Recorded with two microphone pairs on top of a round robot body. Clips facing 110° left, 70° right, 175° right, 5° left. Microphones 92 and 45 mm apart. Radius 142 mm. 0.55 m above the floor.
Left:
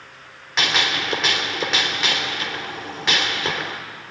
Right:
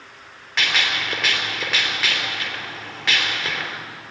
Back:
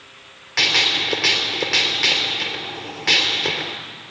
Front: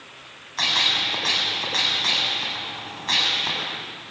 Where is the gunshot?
175° left, 3 m.